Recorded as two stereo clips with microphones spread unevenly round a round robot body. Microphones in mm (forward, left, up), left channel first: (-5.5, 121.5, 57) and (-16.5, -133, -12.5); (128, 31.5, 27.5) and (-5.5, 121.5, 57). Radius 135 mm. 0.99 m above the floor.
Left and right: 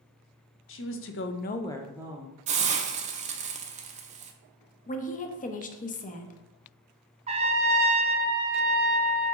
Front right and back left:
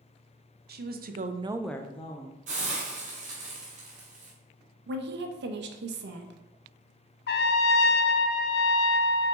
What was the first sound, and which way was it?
A woman speaking, 135° left.